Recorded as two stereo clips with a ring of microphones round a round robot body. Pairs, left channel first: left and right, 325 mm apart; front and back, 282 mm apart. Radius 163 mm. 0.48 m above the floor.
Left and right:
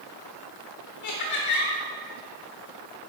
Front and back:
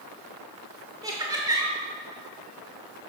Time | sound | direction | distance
1.0 | laughter | 105° left | 1.3 m